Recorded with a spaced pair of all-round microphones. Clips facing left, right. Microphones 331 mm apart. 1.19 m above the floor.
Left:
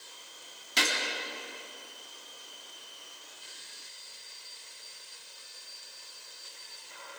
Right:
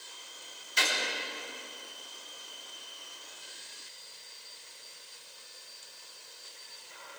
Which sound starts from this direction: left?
A gunshot, at 0.8 s.